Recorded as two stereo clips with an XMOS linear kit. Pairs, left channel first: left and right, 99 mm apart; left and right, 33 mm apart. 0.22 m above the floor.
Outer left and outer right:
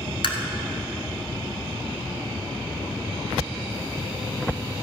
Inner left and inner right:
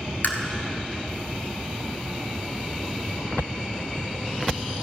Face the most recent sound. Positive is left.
turn(degrees=65)  # may be behind; listen again after turning